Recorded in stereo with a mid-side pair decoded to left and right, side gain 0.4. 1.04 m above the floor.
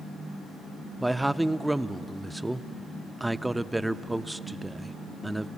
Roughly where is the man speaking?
Ahead.